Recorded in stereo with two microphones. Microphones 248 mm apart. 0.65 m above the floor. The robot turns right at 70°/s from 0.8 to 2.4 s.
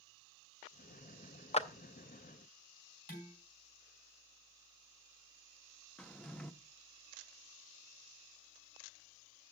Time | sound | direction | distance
1.5 | a clap | 25° left (ahead or behind) | 0.6 m
3.1 | dishes clattering | 40° left (ahead or behind) | 4 m
6.0 | a drawer | 5° left (ahead or behind) | 0.5 m